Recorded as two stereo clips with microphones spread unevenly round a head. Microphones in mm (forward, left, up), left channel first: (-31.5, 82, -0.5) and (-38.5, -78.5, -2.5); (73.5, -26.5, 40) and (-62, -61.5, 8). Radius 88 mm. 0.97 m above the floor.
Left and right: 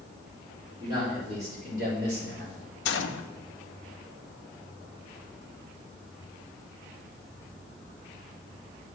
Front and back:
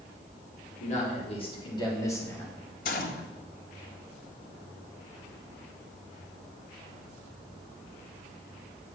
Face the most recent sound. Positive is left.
turn(degrees=60)